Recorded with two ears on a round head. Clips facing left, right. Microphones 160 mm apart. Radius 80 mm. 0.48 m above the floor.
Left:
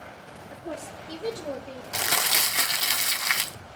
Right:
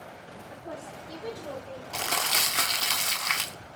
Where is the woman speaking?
30° left (ahead or behind), 0.8 m; by 1.8 s 40° left (ahead or behind), 1.4 m.